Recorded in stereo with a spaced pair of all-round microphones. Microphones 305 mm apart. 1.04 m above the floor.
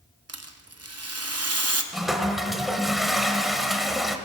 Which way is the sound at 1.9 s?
Centre (ahead or behind).